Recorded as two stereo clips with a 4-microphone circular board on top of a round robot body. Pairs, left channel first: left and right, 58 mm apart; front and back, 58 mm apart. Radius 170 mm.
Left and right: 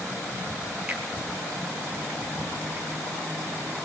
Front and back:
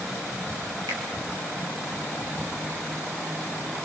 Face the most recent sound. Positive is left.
turn(degrees=-165)